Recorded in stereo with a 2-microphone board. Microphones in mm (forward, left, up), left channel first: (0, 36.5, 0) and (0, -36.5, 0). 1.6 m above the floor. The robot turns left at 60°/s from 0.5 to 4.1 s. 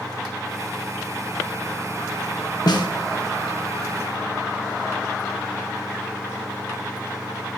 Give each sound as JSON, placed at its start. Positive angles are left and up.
{"t": 2.7, "sound": "a snare drum", "side_deg": 60, "distance_m": 1.5}